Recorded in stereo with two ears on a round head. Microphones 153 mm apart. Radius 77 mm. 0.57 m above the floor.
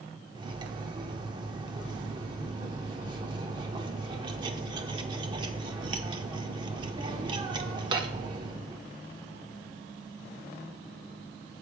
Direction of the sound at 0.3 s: 30° right (ahead or behind).